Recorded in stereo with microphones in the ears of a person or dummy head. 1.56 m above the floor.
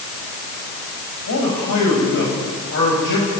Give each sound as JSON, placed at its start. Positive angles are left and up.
{"t": 1.3, "sound": "a man speaking", "side_deg": 65, "distance_m": 8.5}